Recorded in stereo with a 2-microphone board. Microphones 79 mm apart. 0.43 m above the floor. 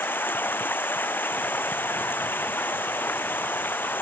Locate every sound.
0.0 s running water: 25° left (ahead or behind)